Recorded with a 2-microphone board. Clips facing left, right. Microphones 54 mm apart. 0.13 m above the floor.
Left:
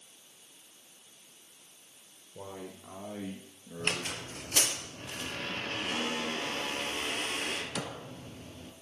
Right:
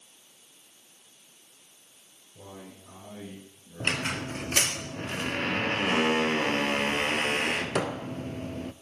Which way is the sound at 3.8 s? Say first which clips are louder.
Right 5 dB; 50° right (ahead or behind).